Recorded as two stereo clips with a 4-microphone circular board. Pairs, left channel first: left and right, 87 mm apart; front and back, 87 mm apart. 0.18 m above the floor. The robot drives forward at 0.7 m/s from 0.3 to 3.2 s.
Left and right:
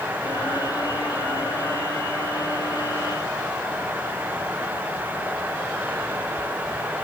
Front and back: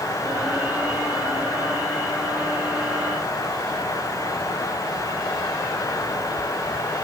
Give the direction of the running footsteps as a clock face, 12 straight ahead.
No running footsteps in this recording.